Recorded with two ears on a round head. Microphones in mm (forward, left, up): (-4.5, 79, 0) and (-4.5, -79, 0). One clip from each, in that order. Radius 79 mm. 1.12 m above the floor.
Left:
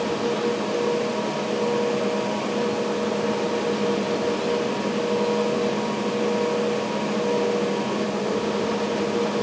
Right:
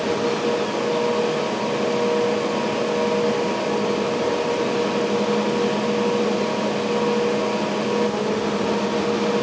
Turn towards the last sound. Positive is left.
No sound to turn to.